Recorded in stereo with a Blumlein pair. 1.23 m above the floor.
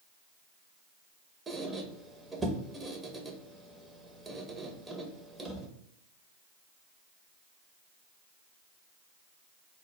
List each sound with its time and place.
1.5 s a squeak: 10° right, 0.7 m